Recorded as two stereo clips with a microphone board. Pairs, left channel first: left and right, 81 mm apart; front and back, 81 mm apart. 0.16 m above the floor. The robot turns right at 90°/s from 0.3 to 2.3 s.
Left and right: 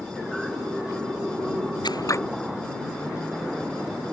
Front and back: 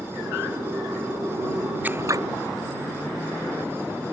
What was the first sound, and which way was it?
Scissors, 110° left.